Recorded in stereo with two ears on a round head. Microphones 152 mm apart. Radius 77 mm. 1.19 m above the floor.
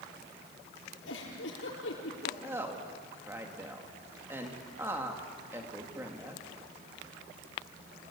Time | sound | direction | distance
1.1 | a giggle | 80° left | 7 m
2.4 | a woman speaking | 15° right (ahead or behind) | 2 m